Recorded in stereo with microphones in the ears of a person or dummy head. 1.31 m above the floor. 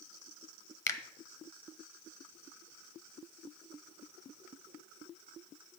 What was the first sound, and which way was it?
A finger snap, 20° left (ahead or behind).